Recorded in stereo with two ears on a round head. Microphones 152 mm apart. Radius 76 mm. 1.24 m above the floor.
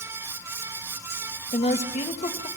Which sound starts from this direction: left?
A woman speaking, at 1.5 s.